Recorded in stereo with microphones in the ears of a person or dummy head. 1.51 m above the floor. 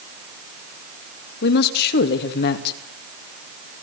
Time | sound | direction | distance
1.4 | a woman speaking | 50° left (ahead or behind) | 2.5 m